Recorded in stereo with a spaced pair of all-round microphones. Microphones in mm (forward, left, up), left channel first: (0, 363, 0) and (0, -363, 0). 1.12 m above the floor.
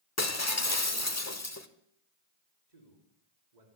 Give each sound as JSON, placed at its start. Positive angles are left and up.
{"t": 0.2, "sound": "breaking glass", "side_deg": 25, "distance_m": 1.1}
{"t": 2.7, "sound": "a man speaking", "side_deg": -75, "distance_m": 3.5}